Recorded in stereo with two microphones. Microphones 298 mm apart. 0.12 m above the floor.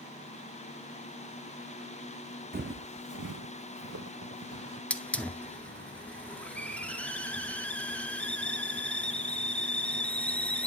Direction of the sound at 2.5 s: 30° right (ahead or behind).